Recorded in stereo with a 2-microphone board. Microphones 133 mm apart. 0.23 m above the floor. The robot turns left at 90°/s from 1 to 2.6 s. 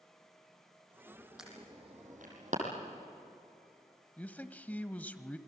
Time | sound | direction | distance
1.4 | an alarm | 5° right (ahead or behind) | 6.5 m
4.2 | a man speaking | 10° left (ahead or behind) | 0.9 m